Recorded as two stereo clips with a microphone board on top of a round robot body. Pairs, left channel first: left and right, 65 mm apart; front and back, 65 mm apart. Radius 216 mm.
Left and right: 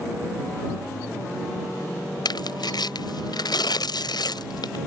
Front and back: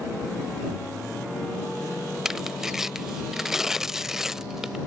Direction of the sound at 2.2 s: 95° left.